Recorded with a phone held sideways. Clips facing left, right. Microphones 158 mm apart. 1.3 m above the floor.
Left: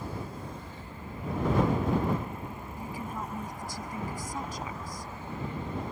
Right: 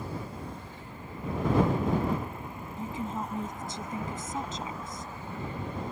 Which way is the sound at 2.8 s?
25° right (ahead or behind).